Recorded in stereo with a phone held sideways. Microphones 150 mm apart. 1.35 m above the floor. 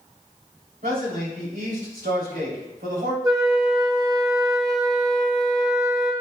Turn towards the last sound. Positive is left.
turn(degrees=-25)  # may be behind; listen again after turning